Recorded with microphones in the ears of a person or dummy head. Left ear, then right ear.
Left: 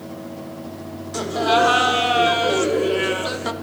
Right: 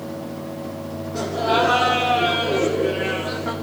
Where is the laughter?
90° left, 4.5 m; by 3.5 s 85° left, 3 m.